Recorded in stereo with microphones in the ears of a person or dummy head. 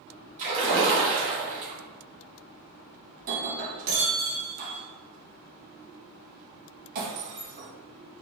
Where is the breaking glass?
50° right (ahead or behind), 1.3 m.